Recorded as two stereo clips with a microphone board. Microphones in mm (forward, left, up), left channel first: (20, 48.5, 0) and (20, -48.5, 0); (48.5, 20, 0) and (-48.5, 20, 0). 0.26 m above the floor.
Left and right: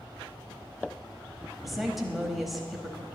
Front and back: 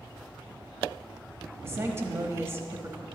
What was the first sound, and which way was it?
A woman speaking, straight behind.